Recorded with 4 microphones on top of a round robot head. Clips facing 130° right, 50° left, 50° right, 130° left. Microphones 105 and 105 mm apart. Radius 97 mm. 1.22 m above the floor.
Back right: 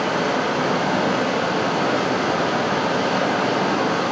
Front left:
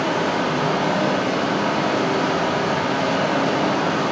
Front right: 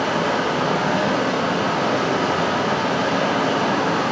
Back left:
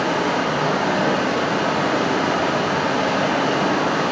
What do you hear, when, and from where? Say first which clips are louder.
0.0 s running water: even, even; 90° right, 1.3 m